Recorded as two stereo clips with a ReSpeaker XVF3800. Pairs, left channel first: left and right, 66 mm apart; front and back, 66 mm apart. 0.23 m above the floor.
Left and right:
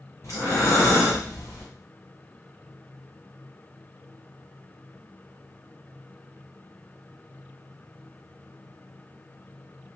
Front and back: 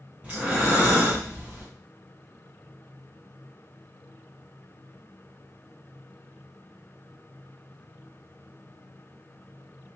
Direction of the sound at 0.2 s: 120° left.